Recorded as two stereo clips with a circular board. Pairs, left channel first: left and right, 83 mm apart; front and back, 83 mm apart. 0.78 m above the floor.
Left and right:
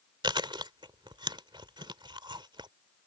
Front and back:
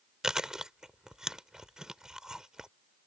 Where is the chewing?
100° right.